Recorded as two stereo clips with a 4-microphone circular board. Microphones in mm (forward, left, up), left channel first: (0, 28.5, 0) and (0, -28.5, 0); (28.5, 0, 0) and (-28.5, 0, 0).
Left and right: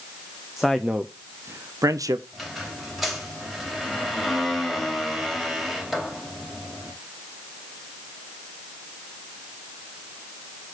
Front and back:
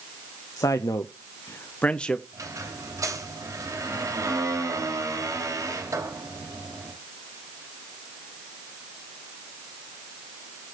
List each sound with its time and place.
0.6 s a man speaking: straight ahead, 0.8 m; by 2.2 s 85° right, 0.8 m
2.3 s a squeak: straight behind, 3 m